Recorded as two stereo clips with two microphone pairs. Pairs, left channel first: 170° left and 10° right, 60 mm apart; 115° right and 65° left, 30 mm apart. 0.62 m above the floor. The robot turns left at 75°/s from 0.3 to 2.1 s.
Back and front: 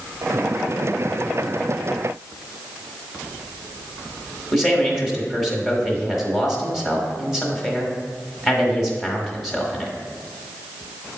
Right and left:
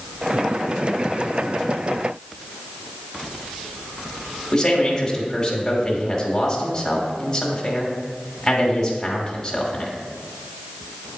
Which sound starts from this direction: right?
A man speaking, at 4.5 s.